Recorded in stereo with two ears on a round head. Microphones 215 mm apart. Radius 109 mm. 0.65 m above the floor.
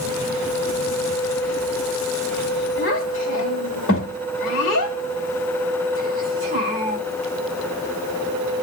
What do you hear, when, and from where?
2.8 s a child speaking: 55° left (ahead or behind), 1.9 m